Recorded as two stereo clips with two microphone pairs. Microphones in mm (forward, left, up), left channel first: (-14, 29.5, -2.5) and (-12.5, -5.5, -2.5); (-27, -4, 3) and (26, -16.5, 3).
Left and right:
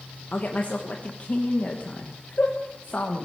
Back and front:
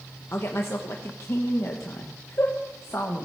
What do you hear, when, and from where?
0.3 s a woman speaking: 130° left, 1.3 m